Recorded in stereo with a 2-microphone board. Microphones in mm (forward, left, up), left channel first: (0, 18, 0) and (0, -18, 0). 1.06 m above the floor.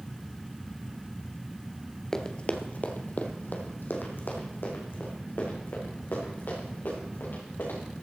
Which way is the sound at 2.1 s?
15° left (ahead or behind).